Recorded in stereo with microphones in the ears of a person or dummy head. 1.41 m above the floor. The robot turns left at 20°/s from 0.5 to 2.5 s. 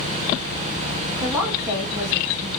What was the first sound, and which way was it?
A woman speaking, 10° right (ahead or behind).